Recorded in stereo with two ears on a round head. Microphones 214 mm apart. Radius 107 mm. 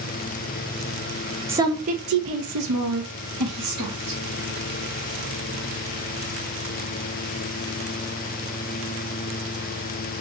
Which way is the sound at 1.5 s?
10° right (ahead or behind).